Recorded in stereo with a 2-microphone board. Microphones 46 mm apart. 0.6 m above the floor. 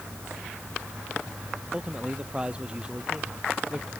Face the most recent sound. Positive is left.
turn(degrees=-25)  # may be behind; listen again after turning